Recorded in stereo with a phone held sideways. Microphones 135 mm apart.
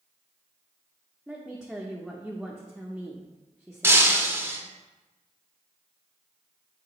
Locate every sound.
1.3 s a woman speaking: 5° right (ahead or behind), 0.7 m
3.8 s breaking glass: 15° right (ahead or behind), 0.8 m